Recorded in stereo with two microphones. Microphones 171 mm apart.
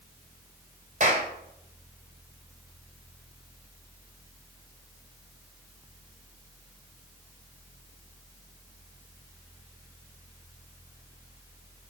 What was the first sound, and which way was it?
A clap, 50° right (ahead or behind).